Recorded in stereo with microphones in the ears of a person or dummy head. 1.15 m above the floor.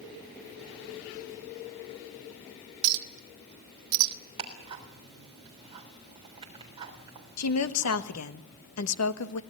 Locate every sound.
2.8 s a clink: 70° right (ahead or behind), 1.2 m
4.4 s ticking: 25° right (ahead or behind), 3.5 m
7.4 s a woman speaking: 80° left, 1.3 m